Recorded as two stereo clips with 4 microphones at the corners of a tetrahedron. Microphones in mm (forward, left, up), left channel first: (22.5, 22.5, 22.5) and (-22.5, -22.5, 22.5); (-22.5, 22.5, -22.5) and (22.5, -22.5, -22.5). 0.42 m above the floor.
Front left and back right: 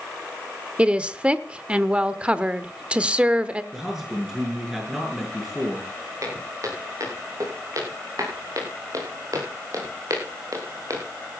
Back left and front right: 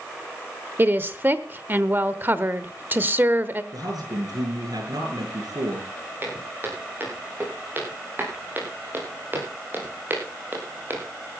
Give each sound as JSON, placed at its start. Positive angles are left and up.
{"t": 0.8, "sound": "a woman speaking", "azimuth_deg": -75, "distance_m": 1.0}
{"t": 3.7, "sound": "a man speaking", "azimuth_deg": -50, "distance_m": 7.0}
{"t": 6.2, "sound": "footsteps", "azimuth_deg": -105, "distance_m": 9.5}